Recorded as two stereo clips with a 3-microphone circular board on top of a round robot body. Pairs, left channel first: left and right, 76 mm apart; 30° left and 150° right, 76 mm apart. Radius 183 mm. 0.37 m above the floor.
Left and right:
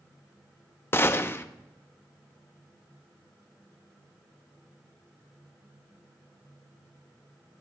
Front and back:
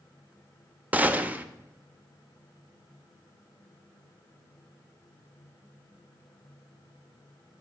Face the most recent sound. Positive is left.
turn(degrees=145)